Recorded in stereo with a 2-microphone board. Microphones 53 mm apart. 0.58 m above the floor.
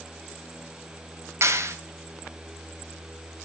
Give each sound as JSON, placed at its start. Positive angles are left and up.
{"t": 1.4, "sound": "a clap", "side_deg": -65, "distance_m": 2.5}